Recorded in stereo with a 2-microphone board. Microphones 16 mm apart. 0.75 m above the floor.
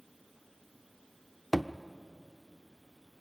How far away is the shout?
I don't hear a shout.